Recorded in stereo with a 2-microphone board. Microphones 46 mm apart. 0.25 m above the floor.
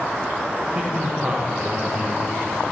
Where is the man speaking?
30° right (ahead or behind), 2 m.